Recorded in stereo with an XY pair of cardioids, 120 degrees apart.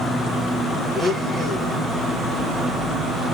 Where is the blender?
35° right, 1.6 m.